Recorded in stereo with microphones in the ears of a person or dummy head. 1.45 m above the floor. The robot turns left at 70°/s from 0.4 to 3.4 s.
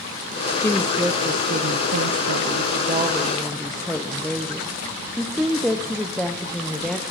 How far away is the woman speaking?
About 0.7 m.